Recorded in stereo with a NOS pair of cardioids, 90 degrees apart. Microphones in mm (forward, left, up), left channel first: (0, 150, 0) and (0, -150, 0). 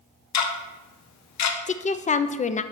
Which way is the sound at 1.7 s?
25° left.